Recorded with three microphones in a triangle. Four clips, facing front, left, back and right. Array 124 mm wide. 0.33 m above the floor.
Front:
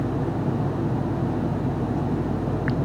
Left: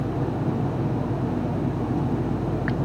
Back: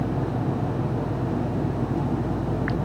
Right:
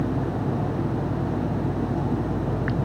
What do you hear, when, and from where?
Only background noise.